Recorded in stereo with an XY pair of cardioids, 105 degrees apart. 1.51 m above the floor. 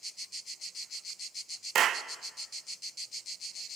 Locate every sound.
1.8 s a clap: 60° right, 1.0 m